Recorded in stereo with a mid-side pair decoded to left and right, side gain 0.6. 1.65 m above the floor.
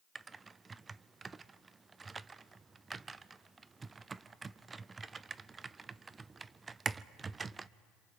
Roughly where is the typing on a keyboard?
Ahead right.